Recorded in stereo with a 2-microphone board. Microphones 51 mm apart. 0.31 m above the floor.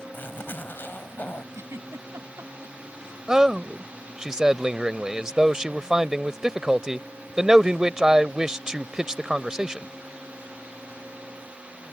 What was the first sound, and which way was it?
A zipper, 40° left (ahead or behind).